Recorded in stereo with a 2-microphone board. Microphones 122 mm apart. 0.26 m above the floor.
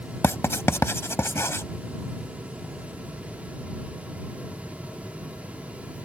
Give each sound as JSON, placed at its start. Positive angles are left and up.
{"t": 0.2, "sound": "writing", "side_deg": 20}